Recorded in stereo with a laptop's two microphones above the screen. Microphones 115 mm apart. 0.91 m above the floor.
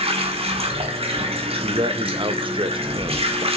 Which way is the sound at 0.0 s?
60° right (ahead or behind).